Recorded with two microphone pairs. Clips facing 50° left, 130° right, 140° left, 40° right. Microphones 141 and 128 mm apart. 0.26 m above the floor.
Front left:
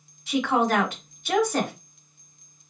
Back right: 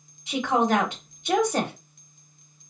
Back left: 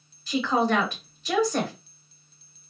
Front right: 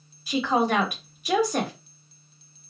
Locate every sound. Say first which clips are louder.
0.3 s a woman speaking: even, even; 100° right, 0.9 m